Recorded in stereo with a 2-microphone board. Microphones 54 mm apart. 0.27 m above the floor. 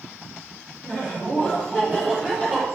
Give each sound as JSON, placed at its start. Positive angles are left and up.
{"t": 0.8, "sound": "laughter", "side_deg": 35, "distance_m": 4.0}